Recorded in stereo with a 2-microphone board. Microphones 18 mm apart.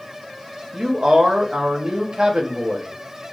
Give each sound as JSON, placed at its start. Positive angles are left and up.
{"t": 0.7, "sound": "a man speaking", "side_deg": -60, "distance_m": 0.7}